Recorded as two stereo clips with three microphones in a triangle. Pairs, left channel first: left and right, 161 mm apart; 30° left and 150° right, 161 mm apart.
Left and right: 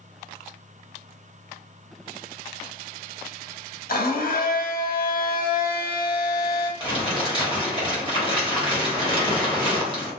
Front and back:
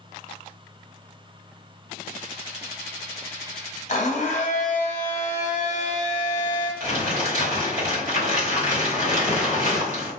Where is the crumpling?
135° right, 1.2 m.